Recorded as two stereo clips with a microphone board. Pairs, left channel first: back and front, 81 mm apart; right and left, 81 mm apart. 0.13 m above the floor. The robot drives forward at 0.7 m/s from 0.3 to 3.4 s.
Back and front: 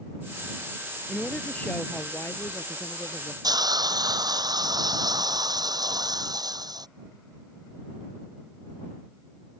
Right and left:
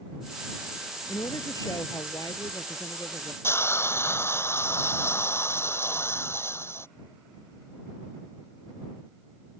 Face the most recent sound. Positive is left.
turn(degrees=-35)